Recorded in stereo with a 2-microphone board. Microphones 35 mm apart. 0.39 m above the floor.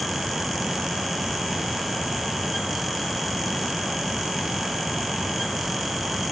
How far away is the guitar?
No guitar in this recording.